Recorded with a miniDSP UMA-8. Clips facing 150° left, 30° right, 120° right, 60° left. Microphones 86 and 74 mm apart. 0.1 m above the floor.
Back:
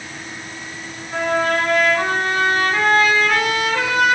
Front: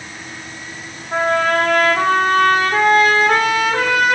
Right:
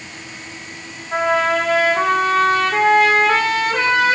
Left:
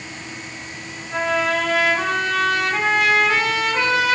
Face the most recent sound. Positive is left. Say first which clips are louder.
# front 3 dB, right 4 dB
turn(degrees=-70)